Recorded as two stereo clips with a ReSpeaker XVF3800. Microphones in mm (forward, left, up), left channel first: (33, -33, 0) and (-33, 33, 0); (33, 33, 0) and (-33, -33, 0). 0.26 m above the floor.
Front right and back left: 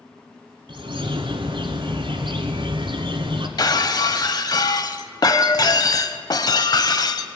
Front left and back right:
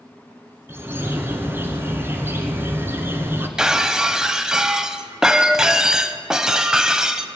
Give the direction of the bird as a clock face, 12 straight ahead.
7 o'clock.